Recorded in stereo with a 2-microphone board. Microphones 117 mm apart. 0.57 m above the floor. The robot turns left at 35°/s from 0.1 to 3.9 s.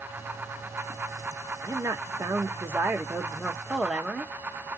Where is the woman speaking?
25° right (ahead or behind), 0.6 m; by 4.3 s 5° right (ahead or behind), 0.6 m.